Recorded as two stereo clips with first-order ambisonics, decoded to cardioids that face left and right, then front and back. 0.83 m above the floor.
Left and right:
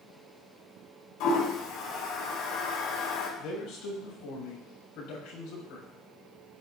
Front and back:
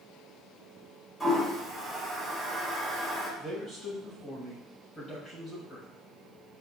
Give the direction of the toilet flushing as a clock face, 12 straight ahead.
9 o'clock.